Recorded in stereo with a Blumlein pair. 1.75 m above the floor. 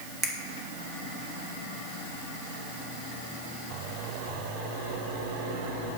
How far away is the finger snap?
About 1.5 m.